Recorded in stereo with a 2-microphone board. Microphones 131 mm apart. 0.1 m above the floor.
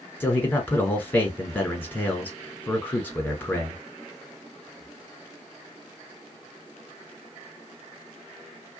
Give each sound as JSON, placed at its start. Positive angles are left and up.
{"t": 0.2, "sound": "a man speaking", "side_deg": 15, "distance_m": 1.2}